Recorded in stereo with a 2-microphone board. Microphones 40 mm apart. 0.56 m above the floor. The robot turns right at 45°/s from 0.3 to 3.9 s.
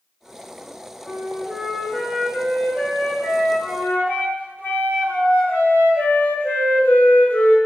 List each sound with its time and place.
1.1 s a flute: 20° right, 1.4 m; by 7.6 s 110° left, 1.4 m